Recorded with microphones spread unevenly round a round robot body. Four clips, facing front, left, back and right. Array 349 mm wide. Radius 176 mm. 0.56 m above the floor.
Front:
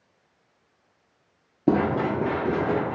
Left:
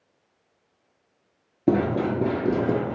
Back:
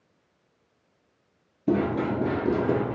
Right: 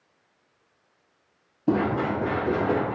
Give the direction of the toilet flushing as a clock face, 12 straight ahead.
No toilet flushing in this recording.